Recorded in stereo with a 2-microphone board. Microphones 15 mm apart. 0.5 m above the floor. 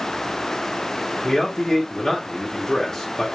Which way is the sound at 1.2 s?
30° left (ahead or behind).